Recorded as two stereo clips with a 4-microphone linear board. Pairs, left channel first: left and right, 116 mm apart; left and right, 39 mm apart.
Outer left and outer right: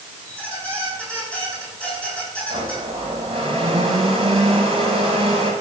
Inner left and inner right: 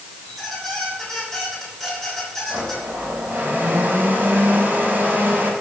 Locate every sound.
0.2 s a squeak: 10° left (ahead or behind), 6.5 m
2.5 s a blender: 60° right (ahead or behind), 6 m